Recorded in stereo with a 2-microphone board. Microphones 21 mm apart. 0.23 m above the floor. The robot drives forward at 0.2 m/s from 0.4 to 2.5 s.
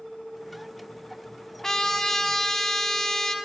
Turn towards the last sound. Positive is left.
turn(degrees=25)  # may be behind; listen again after turning